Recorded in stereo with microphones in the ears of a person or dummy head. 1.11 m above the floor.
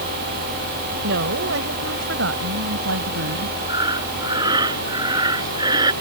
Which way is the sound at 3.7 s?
25° right (ahead or behind).